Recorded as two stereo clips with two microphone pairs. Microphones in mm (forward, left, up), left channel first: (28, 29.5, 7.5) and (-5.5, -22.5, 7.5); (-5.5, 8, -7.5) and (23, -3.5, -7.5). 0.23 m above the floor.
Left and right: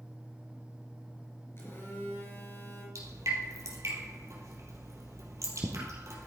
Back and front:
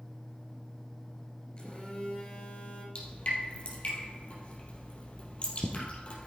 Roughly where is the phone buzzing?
Left.